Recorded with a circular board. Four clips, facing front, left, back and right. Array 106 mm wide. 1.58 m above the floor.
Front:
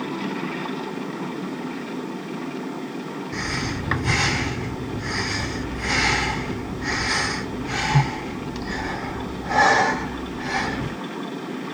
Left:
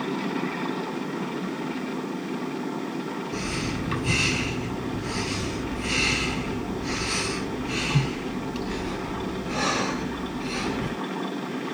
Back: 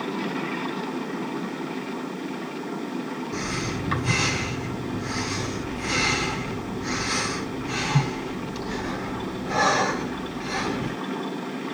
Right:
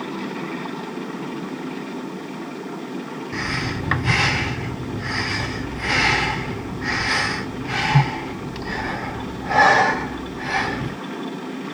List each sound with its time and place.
3.3 s breathing: 60° right, 4.5 m